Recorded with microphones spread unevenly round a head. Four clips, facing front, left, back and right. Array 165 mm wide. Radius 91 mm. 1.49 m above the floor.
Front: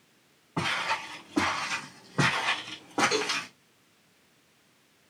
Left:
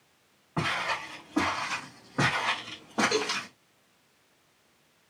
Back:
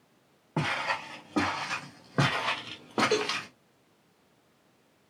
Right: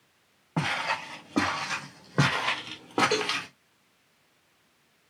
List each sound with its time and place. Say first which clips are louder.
0.6 s footsteps: right 1 dB, even; 150° right, 4 m; by 3.5 s 125° right, 1.8 m
3.1 s a cowbell: right 1 dB, back 2 dB; 155° right, 1.9 m